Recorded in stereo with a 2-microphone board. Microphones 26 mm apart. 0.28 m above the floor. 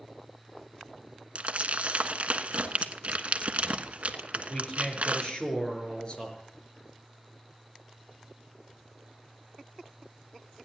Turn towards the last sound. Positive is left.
turn(degrees=40)  # may be behind; listen again after turning